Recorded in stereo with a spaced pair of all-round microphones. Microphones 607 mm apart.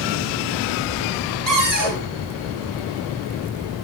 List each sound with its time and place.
1.5 s a cupboard door: 75° right (ahead or behind), 5.5 m